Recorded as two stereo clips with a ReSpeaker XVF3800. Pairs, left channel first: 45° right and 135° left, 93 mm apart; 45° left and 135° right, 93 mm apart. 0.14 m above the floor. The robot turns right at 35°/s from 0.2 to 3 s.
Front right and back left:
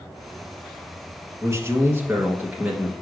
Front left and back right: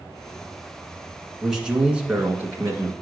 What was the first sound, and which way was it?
A man speaking, 140° left.